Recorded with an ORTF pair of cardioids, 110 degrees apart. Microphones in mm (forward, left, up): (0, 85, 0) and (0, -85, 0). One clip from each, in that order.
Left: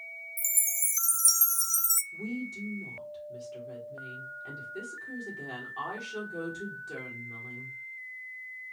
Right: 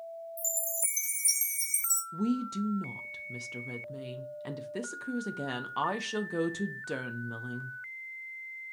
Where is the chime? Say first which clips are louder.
Left 3 dB; 30° left, 0.5 m.